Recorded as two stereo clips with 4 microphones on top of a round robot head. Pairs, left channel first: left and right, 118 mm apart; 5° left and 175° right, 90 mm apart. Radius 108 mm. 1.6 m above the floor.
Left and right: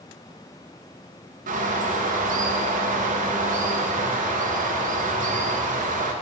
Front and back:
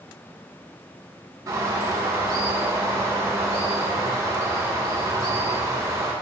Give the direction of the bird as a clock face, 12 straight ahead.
4 o'clock.